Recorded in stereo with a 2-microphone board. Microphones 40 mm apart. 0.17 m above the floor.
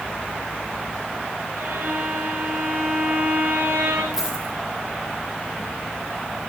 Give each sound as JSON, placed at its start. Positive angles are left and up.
{"t": 1.6, "sound": "a violin", "side_deg": -75, "distance_m": 6.5}
{"t": 4.1, "sound": "a dropped coin", "side_deg": -10, "distance_m": 4.0}